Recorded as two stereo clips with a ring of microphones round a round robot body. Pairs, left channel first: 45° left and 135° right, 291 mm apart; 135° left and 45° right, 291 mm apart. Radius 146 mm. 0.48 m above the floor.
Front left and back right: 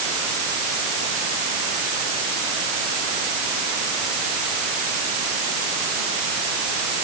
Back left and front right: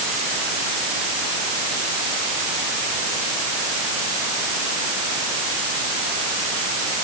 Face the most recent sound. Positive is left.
No sound to turn to.